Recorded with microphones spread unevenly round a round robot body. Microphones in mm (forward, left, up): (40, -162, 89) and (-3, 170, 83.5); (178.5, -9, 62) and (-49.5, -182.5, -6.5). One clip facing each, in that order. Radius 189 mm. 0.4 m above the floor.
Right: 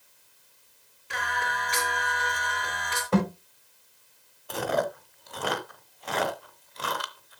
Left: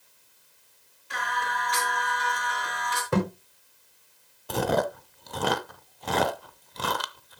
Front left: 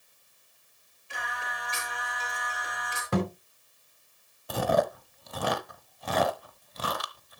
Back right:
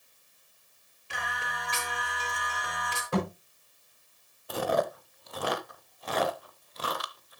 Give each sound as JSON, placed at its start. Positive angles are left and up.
{"t": 1.1, "sound": "singing", "azimuth_deg": -140, "distance_m": 5.0}
{"t": 3.1, "sound": "a thud", "azimuth_deg": 25, "distance_m": 7.5}
{"t": 4.5, "sound": "chewing", "azimuth_deg": 50, "distance_m": 0.9}